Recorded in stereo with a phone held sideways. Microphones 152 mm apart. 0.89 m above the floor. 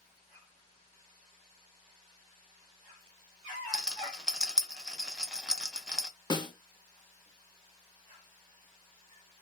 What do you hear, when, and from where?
3.7 s a rattle: 5° right (ahead or behind), 0.5 m
6.3 s a snare drum: 30° left (ahead or behind), 0.6 m